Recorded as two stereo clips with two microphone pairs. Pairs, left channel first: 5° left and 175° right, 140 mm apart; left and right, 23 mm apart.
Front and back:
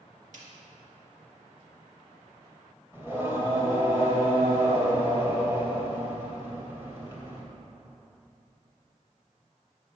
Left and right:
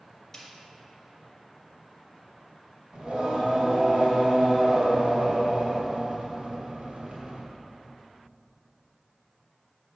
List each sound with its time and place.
0.3 s a snare drum: 160° left, 2 m
2.9 s singing: 105° right, 2 m